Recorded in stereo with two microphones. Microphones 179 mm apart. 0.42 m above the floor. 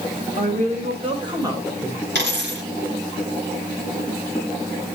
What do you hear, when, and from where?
0.4 s a woman speaking: 45° right (ahead or behind), 2.5 m; by 2.0 s 5° right (ahead or behind), 1.8 m
2.1 s a dropped coin: 75° right (ahead or behind), 3.5 m